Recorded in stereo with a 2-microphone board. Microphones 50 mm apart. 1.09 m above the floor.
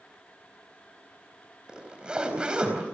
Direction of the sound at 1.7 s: 20° right (ahead or behind).